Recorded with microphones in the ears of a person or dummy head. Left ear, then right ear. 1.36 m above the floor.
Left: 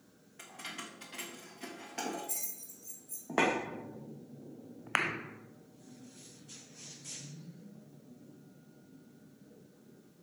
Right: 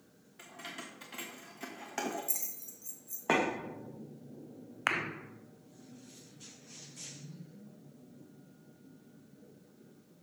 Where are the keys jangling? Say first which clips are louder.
Left 1 dB; 5° left (ahead or behind), 1.4 m; by 3.3 s 65° right (ahead or behind), 1.7 m.